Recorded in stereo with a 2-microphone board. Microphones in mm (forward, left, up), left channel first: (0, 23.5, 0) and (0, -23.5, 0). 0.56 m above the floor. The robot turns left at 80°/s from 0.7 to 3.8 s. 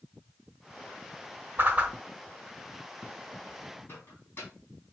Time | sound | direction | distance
1.6 | a whoosh | 50° right (ahead or behind) | 1.2 m
3.9 | a microwave | 50° left (ahead or behind) | 5 m